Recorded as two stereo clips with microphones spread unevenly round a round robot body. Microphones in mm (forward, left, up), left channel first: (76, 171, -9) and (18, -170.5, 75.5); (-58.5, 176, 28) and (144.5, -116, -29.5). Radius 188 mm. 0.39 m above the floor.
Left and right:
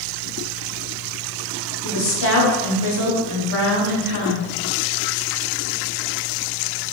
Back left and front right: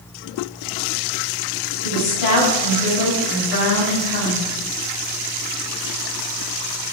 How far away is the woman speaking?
About 1.3 m.